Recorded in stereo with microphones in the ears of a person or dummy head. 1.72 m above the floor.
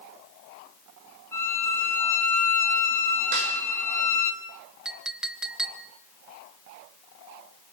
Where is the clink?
5° right (ahead or behind), 1.2 m.